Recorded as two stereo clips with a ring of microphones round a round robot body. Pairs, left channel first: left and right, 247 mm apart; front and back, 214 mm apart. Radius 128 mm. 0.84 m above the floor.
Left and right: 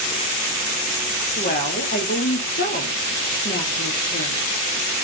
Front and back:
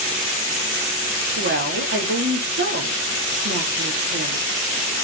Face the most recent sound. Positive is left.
turn(degrees=145)